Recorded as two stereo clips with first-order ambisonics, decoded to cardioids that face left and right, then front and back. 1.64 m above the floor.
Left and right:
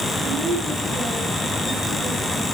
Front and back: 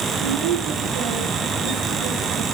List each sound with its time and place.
0.1 s a woman speaking: 170° right, 4 m